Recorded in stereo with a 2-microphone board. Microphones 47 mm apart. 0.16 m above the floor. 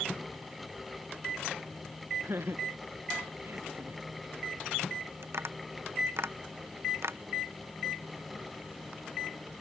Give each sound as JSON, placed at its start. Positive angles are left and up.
{"t": 2.2, "sound": "laughter", "side_deg": -60}
{"t": 5.2, "sound": "tapping", "side_deg": -65}